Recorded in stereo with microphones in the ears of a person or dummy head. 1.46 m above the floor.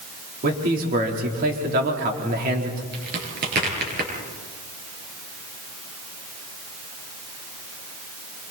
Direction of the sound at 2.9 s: 55° right (ahead or behind).